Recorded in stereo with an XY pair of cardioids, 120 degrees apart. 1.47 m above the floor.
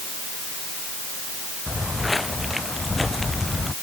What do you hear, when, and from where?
1.7 s footsteps: 10° left; by 3.8 s 15° left